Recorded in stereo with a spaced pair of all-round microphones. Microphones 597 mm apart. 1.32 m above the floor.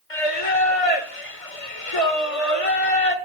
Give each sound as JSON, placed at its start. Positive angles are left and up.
{"t": 0.1, "sound": "singing", "side_deg": 65, "distance_m": 2.0}